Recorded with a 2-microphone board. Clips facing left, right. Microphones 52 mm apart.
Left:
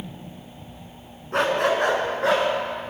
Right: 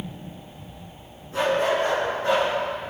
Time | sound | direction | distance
1.3 | a dog barking | 60° left (ahead or behind) | 1.9 m